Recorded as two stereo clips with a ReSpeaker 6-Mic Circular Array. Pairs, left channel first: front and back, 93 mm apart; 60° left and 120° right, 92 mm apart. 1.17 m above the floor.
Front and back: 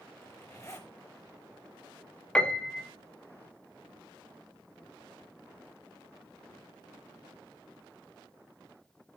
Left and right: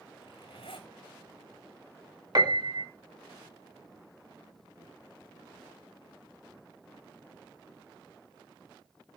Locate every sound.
0.2 s a zipper: 55° left, 4 m
2.4 s a piano: 80° right, 1.4 m